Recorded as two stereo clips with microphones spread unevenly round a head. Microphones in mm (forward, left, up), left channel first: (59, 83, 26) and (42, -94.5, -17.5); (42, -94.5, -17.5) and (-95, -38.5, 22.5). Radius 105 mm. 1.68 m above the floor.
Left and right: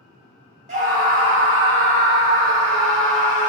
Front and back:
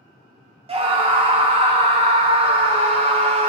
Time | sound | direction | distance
0.7 | a scream | 155° right | 1.1 m